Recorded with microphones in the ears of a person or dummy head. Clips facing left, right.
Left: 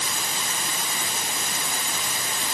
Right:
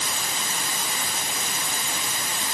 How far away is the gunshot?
No gunshot in this recording.